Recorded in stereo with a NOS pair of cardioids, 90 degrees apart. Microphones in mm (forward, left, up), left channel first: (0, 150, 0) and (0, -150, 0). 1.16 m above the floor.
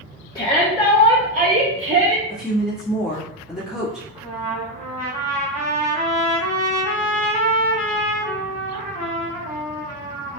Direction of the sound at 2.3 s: Straight ahead.